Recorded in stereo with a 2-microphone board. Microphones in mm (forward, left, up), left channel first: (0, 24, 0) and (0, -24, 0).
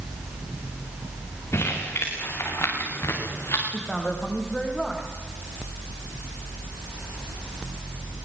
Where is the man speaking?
10° left (ahead or behind), 7.5 m.